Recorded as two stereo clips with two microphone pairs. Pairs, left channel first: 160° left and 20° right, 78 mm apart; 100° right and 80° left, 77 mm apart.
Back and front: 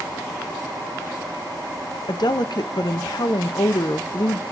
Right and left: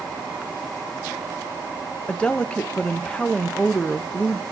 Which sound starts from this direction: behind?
A woman speaking, at 2.1 s.